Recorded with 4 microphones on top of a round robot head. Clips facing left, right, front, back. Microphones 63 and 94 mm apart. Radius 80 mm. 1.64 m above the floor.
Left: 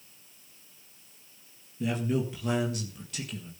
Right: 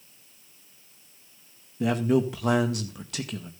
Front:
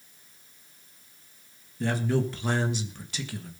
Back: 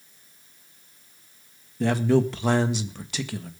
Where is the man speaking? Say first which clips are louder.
Right 6 dB, back 6 dB; 140° right, 1.7 m.